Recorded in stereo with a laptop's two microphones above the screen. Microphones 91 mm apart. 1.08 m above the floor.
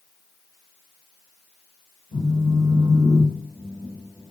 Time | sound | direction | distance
2.1 | a phone buzzing | 60° left (ahead or behind) | 1.6 m